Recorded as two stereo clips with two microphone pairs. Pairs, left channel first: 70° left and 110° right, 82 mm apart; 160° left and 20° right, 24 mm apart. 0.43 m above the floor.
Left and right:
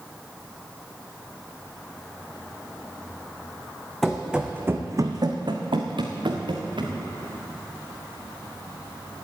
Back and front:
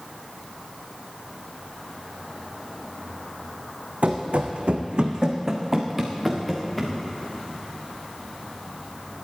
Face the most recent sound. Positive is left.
turn(degrees=-120)